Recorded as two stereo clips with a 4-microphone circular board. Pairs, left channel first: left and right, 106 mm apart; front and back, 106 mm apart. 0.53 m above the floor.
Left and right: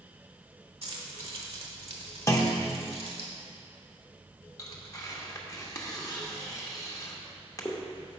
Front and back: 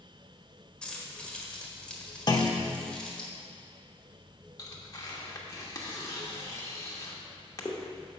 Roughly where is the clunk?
Ahead left.